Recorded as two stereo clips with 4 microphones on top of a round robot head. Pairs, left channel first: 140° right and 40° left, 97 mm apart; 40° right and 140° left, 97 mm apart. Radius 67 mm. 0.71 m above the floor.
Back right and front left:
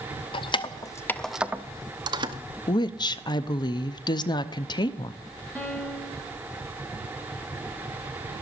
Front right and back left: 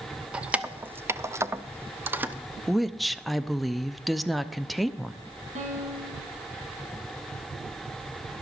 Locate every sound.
0.3 s keys jangling: 145° right, 0.8 m; by 2.4 s 70° left, 1.0 m
2.7 s a woman speaking: 130° right, 0.7 m
5.5 s a piano: 145° left, 2.5 m